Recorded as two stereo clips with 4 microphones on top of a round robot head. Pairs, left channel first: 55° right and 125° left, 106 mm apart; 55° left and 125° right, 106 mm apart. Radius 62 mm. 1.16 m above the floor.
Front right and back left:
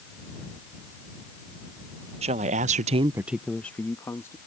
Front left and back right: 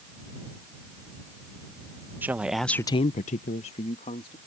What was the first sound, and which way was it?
A woman speaking, 160° left.